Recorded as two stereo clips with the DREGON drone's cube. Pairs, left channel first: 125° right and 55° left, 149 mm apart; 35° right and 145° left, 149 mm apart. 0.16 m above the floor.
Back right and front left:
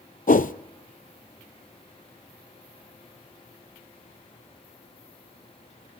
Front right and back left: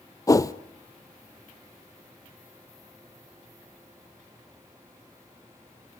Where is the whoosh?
100° right, 0.6 m.